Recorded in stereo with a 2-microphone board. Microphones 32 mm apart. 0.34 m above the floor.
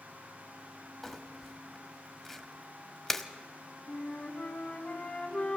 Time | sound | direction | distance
1.0 | crumpling | 10° left (ahead or behind) | 1.2 m
3.9 | a flute | 35° left (ahead or behind) | 3 m